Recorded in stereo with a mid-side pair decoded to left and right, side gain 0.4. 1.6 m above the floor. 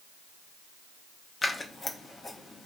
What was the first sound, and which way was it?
Scissors, 35° left.